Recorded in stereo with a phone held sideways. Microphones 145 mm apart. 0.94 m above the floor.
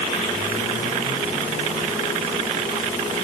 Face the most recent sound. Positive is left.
No sound to turn to.